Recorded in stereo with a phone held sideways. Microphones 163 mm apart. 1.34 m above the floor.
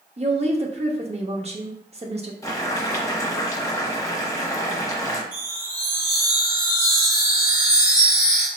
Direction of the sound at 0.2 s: 40° right (ahead or behind).